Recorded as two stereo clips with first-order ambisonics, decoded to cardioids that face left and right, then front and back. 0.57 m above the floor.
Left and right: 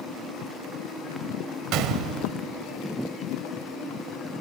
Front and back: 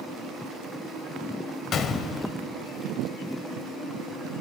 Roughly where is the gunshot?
Ahead right.